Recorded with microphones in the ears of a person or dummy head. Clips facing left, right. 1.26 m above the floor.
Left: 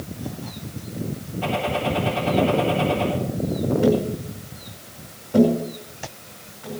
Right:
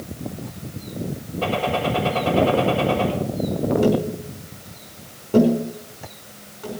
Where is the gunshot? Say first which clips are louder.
Right 2 dB; 80° right, 7 m.